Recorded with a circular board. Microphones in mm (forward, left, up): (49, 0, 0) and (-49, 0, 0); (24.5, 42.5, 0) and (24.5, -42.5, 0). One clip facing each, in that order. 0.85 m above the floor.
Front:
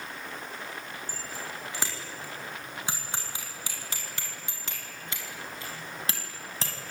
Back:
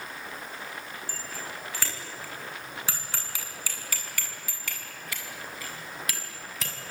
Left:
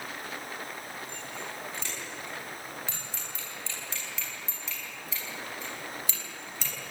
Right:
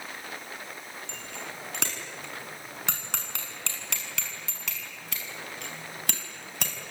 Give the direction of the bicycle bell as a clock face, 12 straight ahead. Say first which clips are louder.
Even, left 1 dB; 2 o'clock.